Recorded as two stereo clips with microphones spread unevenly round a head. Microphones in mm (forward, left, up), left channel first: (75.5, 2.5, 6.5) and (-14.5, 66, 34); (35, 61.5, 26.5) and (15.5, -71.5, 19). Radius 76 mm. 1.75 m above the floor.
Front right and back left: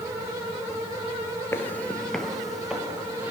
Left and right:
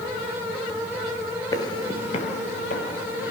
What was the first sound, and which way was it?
Footsteps, 40° left.